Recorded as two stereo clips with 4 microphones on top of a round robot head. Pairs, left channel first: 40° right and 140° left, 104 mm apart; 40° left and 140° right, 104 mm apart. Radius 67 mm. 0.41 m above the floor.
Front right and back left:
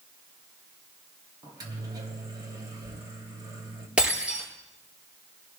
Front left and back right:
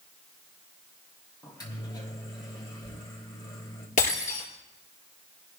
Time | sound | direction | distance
1.4 | a microwave | 90° left | 2.5 m
4.0 | breaking glass | 60° left | 5.5 m